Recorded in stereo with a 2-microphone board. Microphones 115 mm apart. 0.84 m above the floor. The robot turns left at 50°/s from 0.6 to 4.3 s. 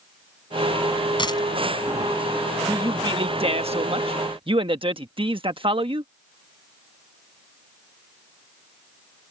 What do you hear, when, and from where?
1.2 s a dropped coin: 45° left (ahead or behind); by 1.4 s 35° left (ahead or behind)
2.7 s a man speaking: 35° right; by 6.1 s 120° right